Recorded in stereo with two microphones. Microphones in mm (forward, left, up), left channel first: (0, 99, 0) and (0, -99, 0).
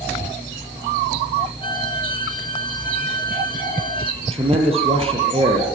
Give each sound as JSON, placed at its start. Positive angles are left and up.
{"t": 1.6, "sound": "a violin", "side_deg": 25, "distance_m": 2.0}
{"t": 4.2, "sound": "a man speaking", "side_deg": -30, "distance_m": 7.0}